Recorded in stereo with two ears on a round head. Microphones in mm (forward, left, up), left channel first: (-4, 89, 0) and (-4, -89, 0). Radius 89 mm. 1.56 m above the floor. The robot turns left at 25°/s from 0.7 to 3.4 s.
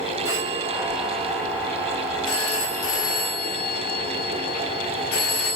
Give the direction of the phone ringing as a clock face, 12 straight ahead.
6 o'clock.